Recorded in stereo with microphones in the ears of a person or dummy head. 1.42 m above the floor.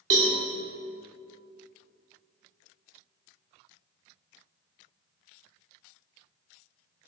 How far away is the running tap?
No running tap in this recording.